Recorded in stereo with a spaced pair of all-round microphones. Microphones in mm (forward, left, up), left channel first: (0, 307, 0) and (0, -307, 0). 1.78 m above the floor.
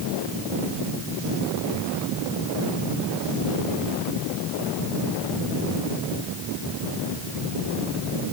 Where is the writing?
No writing in this recording.